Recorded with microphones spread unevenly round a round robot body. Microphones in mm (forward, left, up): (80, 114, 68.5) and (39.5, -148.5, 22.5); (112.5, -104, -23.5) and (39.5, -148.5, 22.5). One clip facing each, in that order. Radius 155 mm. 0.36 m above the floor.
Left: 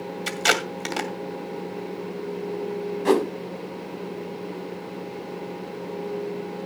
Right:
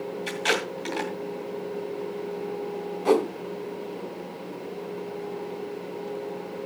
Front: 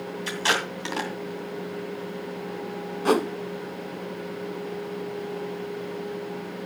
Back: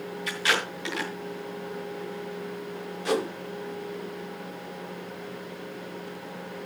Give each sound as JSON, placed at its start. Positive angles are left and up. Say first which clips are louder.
{"t": 0.3, "sound": "tape being pulled", "louder": "left 2 dB, front 1 dB", "azimuth_deg": 65, "distance_m": 2.5}
{"t": 3.0, "sound": "a whoosh", "louder": "left 1 dB, front 5 dB", "azimuth_deg": 15, "distance_m": 1.2}